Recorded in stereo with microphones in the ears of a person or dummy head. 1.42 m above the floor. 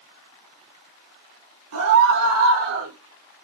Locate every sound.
1.7 s a scream: 80° right, 4 m; by 2.9 s 85° right, 4 m